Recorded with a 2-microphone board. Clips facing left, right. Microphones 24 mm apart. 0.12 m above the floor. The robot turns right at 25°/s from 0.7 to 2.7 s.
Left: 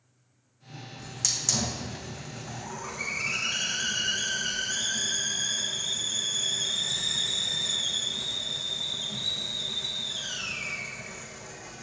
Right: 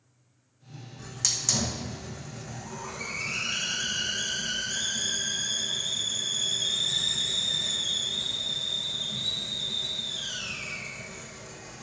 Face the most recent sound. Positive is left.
turn(degrees=30)